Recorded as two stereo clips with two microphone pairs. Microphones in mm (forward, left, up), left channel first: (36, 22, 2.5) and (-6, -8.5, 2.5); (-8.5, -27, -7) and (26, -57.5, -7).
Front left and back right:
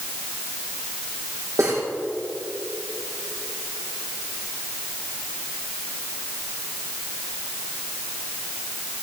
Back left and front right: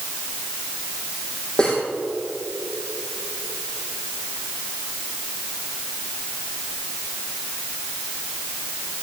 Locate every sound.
1.6 s cutlery clinking: 150° right, 3.5 m